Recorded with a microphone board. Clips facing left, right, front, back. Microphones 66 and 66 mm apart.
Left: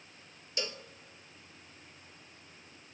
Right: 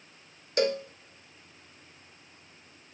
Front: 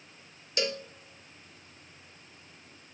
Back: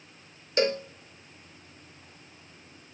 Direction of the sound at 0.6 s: 125° right.